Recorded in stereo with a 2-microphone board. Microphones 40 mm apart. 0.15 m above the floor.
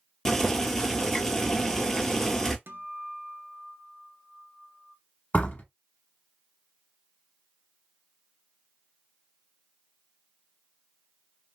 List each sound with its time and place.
0.2 s boiling: 15° left (ahead or behind), 0.7 m
2.7 s a guitar: 60° right (ahead or behind), 0.6 m
5.3 s a door slam: 35° left (ahead or behind), 0.8 m